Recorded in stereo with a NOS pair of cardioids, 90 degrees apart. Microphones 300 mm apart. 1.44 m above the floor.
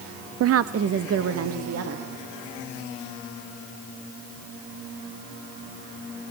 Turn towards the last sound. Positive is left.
turn(degrees=-50)